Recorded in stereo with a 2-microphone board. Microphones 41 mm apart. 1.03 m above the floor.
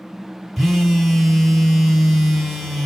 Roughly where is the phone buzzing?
Centre.